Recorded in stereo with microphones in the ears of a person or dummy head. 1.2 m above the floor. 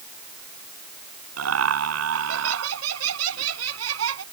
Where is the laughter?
80° right.